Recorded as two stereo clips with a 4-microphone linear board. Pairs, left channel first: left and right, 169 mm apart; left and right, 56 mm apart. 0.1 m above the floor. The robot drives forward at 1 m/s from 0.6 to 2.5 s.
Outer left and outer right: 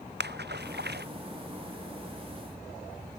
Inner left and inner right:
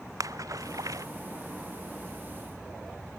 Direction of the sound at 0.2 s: 80° right.